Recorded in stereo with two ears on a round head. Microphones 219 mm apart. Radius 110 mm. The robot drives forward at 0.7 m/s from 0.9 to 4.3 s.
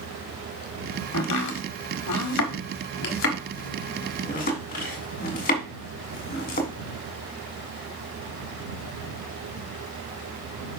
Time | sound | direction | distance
1.1 | chopping | 75° left (ahead or behind) | 1.5 m